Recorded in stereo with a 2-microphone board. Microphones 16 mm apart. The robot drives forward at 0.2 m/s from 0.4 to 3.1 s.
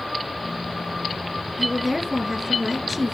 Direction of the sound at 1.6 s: 10° right (ahead or behind).